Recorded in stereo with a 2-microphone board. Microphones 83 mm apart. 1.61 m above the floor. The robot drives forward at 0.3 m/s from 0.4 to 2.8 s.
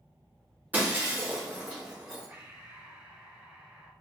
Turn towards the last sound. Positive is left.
turn(degrees=-25)  # may be behind; listen again after turning